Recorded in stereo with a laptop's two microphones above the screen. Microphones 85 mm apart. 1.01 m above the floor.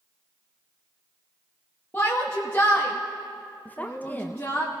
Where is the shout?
20° left (ahead or behind), 1.2 m.